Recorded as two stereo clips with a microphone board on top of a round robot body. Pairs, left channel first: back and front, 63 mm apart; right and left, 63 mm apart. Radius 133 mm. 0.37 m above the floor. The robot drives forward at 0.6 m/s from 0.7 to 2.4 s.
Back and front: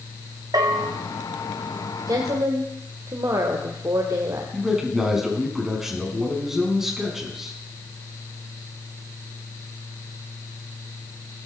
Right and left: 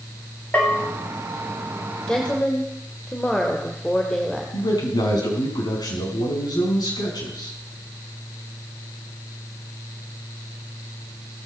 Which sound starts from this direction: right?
A man speaking, at 4.5 s.